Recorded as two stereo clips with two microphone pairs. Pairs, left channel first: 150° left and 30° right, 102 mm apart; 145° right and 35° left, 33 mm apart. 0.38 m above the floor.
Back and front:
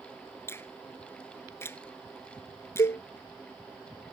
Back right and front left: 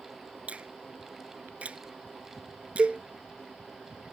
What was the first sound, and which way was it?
A finger snap, 85° left.